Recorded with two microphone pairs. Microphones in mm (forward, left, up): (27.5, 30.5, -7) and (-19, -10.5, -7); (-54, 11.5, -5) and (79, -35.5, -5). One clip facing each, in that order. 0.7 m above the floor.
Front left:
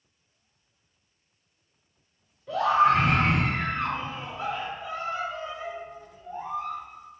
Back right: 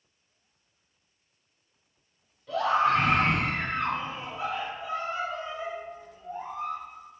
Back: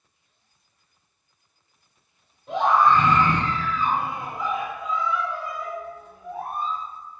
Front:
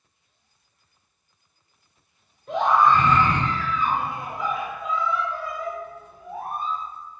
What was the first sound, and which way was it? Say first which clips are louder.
A scream: front left 3 dB, even; 115° left.